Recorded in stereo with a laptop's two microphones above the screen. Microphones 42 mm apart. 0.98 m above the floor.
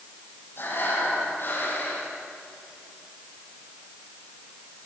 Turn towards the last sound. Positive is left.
turn(degrees=55)  # may be behind; listen again after turning